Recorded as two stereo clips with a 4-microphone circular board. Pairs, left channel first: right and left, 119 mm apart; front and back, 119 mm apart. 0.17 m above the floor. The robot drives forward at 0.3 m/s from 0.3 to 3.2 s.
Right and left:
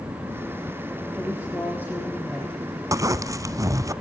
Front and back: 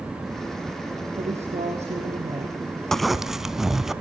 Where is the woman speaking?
165° right, 3.5 m.